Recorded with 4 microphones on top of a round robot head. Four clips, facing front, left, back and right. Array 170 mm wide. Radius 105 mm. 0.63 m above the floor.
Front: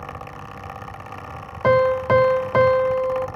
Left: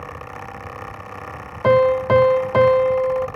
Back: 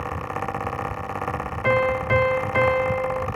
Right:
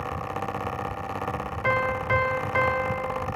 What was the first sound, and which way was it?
A piano, 50° left.